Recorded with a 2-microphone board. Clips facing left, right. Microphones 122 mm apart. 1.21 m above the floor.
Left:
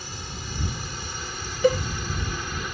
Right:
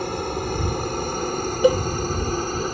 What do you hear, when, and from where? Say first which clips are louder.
0.0 s a helicopter: right 14 dB; 55° right (ahead or behind); by 2.8 s 35° right (ahead or behind)
1.6 s a cowbell: right 3 dB; 15° right (ahead or behind)